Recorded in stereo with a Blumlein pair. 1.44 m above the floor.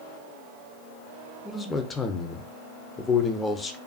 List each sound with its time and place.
1.4 s a man speaking: 15° left, 0.5 m